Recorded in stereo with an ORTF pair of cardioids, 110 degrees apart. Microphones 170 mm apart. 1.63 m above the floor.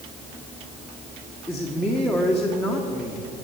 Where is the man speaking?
5° left, 1.5 m.